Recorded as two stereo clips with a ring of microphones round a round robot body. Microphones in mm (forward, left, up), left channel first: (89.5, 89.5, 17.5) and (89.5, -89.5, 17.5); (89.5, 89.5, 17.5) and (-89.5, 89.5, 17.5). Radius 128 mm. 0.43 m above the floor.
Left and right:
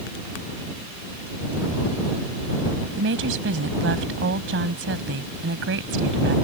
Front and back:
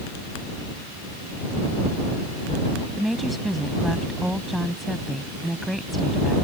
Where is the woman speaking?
90° right.